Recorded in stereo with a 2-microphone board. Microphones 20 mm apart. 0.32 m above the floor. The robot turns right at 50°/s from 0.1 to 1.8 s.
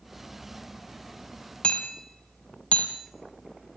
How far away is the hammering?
About 2.5 m.